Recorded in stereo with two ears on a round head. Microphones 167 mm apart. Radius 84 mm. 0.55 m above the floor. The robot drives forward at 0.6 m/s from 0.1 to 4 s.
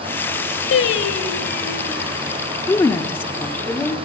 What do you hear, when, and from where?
0.7 s singing: 70° left (ahead or behind), 1.4 m; by 2.1 s 45° left (ahead or behind), 1.8 m
2.7 s a woman speaking: 15° left (ahead or behind), 0.8 m; by 4.0 s 10° left (ahead or behind), 1.4 m